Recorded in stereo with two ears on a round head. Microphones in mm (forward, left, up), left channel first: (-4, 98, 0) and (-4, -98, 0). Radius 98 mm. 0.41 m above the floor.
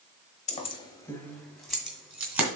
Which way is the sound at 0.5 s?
35° left (ahead or behind).